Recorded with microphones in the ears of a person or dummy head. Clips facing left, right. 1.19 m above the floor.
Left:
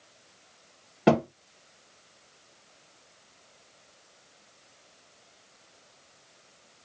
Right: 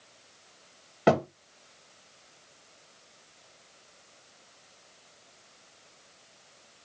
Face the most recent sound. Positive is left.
turn(degrees=5)  # may be behind; listen again after turning